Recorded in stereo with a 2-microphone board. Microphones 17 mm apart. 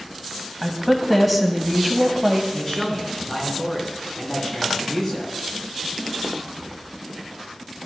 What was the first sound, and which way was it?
A woman speaking, 5° right (ahead or behind).